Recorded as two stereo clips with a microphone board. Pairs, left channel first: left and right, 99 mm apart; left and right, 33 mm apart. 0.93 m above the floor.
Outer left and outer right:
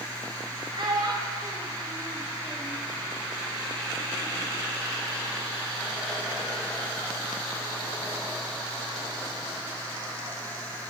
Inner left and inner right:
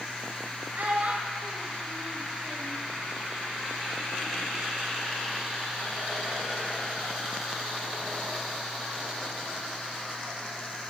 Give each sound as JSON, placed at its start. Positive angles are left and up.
{"t": 0.8, "sound": "a child speaking", "side_deg": -60, "distance_m": 1.6}